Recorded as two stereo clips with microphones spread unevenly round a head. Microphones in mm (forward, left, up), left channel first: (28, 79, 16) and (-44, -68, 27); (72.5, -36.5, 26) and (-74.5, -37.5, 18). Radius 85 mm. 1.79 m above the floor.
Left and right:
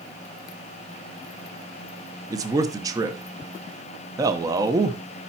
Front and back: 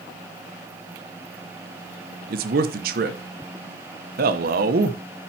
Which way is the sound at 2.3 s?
Straight behind.